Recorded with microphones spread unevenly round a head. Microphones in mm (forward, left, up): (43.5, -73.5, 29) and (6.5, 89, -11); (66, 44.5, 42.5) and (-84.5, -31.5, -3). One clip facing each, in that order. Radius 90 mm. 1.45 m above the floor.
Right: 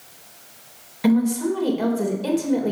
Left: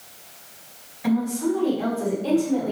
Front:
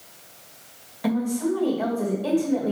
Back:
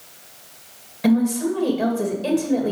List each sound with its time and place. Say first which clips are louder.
1.0 s a woman speaking: right 4 dB, back 5 dB; 90° right, 2.5 m